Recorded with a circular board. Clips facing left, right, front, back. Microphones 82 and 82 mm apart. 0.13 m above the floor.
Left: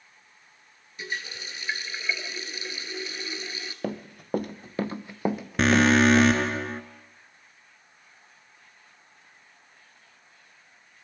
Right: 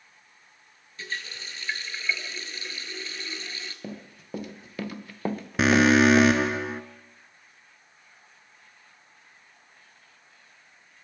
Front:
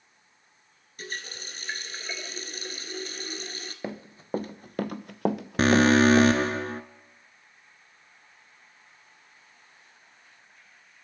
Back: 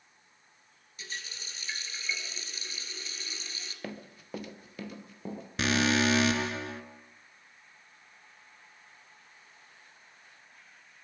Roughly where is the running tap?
Ahead.